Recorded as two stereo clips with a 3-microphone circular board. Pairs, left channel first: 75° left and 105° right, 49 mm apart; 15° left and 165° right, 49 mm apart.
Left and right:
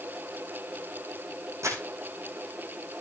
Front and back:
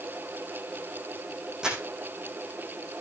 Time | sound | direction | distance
1.6 | crumpling | 90° right | 3.5 m